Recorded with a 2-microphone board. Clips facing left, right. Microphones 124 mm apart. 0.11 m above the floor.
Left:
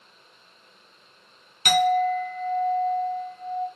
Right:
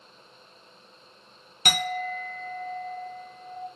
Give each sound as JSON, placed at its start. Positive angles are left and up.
{"t": 1.6, "sound": "a clink", "side_deg": -40, "distance_m": 1.0}